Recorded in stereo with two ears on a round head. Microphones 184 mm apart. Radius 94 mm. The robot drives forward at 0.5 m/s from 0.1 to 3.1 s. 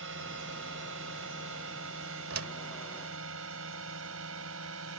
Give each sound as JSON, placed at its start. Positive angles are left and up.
{"t": 0.0, "sound": "a drone", "side_deg": -70}
{"t": 2.3, "sound": "a door slam", "side_deg": -80}